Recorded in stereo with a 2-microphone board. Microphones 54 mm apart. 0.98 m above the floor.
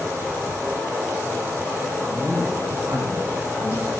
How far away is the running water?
About 4 m.